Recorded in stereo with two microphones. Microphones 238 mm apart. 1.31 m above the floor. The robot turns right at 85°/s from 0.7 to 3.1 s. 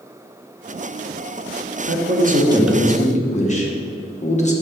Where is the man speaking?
75° right, 1.3 m; by 4.5 s 30° left, 1.3 m.